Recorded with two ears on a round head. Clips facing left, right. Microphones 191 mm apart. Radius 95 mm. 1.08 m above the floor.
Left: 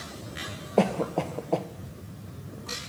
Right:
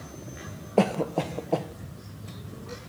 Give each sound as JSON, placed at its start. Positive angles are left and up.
{"t": 0.8, "sound": "a cough", "side_deg": 0, "distance_m": 0.5}